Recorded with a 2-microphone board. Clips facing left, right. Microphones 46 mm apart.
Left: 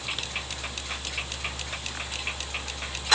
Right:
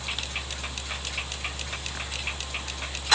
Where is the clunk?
No clunk in this recording.